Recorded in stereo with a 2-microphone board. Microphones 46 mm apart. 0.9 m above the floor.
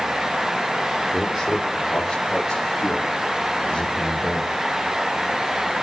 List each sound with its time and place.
1.1 s a man speaking: centre (ahead or behind), 3 m; by 4.5 s 15° left (ahead or behind), 6 m